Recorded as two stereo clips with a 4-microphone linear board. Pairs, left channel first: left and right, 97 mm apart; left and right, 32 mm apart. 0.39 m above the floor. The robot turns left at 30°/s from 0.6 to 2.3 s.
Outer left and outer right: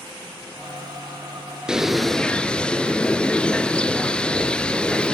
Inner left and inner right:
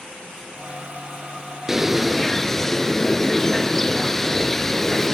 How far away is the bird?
About 0.9 m.